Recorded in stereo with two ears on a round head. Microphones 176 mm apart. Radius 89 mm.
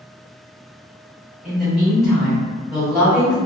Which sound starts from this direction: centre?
A woman speaking, at 1.4 s.